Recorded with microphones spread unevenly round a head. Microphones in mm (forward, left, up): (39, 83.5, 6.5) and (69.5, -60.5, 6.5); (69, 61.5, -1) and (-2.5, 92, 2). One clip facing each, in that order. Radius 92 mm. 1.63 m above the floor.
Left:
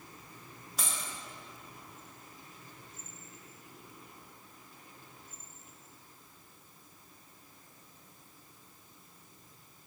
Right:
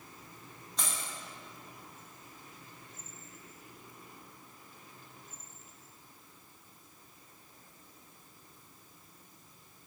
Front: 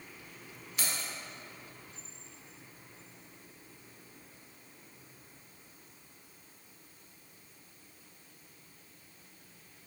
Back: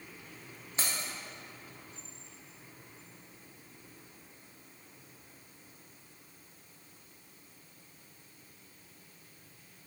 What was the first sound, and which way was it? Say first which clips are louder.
Keys jangling: even, back 1 dB; 175° right.